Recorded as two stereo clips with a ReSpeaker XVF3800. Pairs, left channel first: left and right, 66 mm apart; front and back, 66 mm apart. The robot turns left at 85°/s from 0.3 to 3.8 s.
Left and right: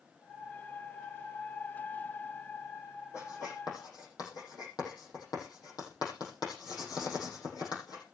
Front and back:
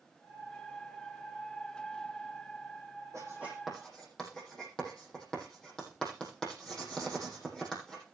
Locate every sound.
3.1 s writing: 135° left, 8 m; by 8.0 s 80° left, 8 m